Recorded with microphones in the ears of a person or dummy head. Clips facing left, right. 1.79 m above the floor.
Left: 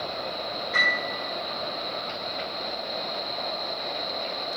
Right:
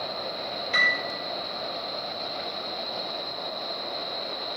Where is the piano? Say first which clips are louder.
Left 1 dB; 45° right (ahead or behind), 2 m.